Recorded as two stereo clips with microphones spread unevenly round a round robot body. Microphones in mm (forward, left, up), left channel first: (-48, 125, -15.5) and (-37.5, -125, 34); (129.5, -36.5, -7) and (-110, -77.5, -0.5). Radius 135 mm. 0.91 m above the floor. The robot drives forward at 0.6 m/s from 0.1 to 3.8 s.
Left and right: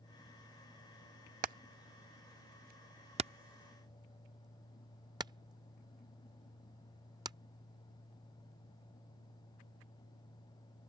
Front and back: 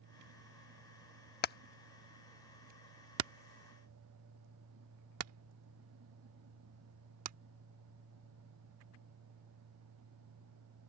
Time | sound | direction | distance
1.4 | hammering | 35° right | ?